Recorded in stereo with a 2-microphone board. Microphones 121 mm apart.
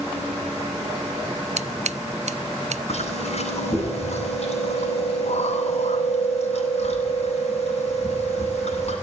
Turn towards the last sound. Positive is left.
turn(degrees=60)  # may be behind; listen again after turning